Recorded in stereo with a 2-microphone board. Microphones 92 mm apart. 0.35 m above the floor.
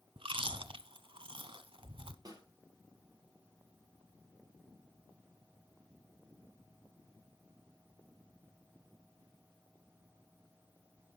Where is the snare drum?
45° right (ahead or behind), 4.5 m.